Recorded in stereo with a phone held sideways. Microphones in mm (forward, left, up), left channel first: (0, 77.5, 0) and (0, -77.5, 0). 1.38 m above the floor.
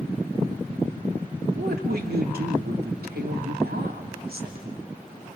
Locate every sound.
1.6 s a woman speaking: 85° right, 2.5 m